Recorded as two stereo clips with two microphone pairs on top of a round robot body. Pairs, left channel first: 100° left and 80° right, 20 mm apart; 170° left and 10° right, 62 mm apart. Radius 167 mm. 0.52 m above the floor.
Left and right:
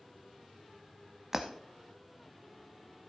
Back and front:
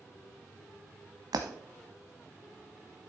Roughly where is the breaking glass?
Ahead.